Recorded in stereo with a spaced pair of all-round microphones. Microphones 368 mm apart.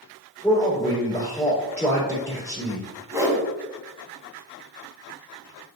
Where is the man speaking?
5° left (ahead or behind), 4 m.